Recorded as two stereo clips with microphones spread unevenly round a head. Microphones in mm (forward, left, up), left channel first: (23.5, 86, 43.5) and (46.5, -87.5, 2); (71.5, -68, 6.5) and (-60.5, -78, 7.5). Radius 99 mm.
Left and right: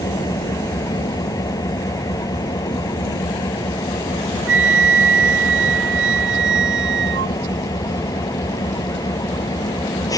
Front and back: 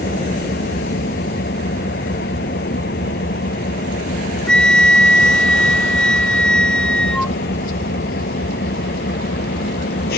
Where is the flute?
80° right.